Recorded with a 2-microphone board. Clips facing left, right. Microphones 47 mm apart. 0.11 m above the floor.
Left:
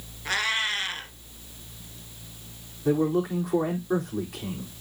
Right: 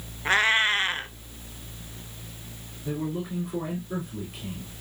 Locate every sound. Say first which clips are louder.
0.2 s a cat meowing: right 5 dB; 30° right (ahead or behind), 0.8 m
2.9 s a man speaking: left 8 dB; 70° left (ahead or behind), 4 m